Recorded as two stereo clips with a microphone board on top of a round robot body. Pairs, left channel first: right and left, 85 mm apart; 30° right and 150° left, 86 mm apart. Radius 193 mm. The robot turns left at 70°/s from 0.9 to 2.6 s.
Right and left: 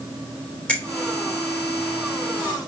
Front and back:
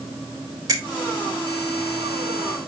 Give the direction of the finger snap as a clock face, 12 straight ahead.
5 o'clock.